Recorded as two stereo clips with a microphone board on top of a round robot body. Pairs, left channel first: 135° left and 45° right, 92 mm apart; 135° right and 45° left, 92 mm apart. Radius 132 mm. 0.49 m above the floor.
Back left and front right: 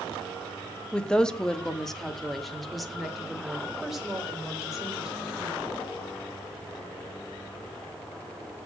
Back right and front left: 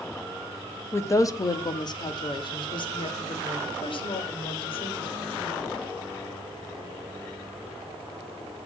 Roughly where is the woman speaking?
Behind right.